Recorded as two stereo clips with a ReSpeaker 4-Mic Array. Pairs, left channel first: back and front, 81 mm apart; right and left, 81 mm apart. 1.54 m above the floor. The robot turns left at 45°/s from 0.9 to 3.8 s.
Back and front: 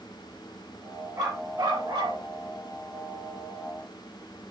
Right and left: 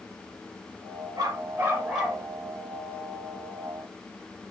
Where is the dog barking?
45° left, 7.5 m; by 2.2 s straight ahead, 7.5 m.